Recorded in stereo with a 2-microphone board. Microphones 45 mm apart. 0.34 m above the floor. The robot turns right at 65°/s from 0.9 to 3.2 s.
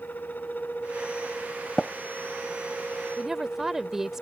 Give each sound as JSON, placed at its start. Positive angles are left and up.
{"t": 1.8, "sound": "tapping", "side_deg": 15}
{"t": 3.2, "sound": "a woman speaking", "side_deg": -10}